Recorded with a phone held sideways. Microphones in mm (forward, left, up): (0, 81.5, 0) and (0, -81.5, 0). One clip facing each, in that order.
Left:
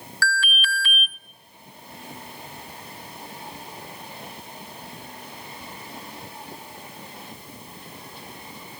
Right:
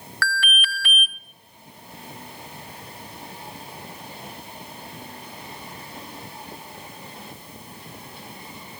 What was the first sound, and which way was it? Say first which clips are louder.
An alarm: left 1 dB; 60° right (ahead or behind).